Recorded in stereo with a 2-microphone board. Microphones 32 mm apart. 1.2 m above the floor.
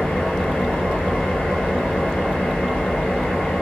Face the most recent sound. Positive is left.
turn(degrees=50)  # may be behind; listen again after turning